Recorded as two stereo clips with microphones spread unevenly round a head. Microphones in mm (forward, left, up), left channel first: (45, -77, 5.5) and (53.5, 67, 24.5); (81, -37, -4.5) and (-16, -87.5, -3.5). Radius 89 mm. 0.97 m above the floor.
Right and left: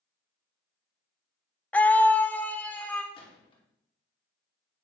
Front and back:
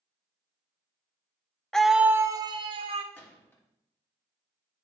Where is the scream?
50° right, 0.5 m; by 3.0 s 170° right, 0.8 m.